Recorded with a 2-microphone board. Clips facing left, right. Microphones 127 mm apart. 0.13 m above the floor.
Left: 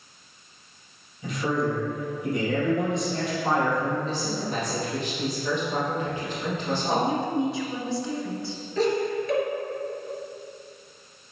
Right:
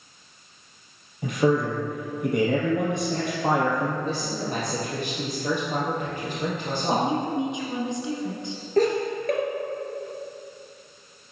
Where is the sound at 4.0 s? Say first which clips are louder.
Even; 40° right (ahead or behind), 3.5 m.